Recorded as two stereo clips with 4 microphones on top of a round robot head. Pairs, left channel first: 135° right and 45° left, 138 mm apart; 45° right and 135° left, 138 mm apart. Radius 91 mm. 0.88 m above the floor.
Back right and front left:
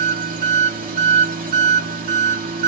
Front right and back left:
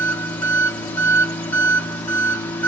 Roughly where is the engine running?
Ahead left.